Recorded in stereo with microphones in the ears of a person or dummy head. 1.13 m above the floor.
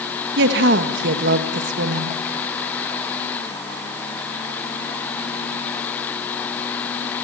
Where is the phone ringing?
I don't hear a phone ringing.